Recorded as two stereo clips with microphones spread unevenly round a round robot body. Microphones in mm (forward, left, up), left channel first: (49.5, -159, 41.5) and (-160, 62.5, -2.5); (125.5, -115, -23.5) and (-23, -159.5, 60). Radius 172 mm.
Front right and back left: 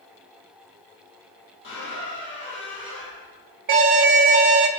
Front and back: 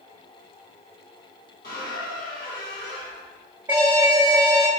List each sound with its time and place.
1.6 s a squeak: 10° left, 4 m
3.7 s an alarm: 100° left, 0.7 m